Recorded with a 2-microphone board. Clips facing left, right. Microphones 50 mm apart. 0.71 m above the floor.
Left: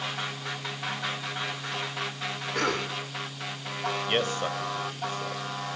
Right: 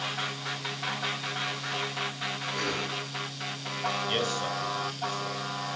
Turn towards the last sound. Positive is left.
turn(degrees=35)  # may be behind; listen again after turning